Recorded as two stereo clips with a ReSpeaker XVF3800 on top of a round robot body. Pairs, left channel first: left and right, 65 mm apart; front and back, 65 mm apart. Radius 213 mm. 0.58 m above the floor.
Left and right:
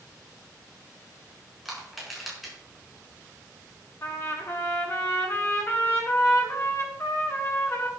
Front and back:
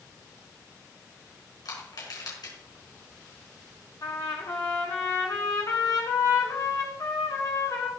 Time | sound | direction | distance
1.6 | crushing | 5° right | 6.5 m
4.0 | a trumpet | 40° left | 1.4 m